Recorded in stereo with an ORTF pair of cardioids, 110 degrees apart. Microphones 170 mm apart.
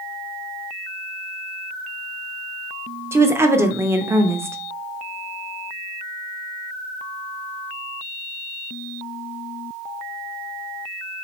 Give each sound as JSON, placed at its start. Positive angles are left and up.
{"t": 3.1, "sound": "a woman speaking", "azimuth_deg": -15, "distance_m": 0.6}